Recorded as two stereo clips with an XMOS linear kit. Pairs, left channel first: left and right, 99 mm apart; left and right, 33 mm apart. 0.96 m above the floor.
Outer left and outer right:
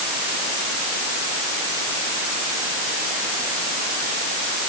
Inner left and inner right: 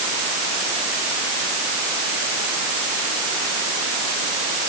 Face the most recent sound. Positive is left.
No sound to turn to.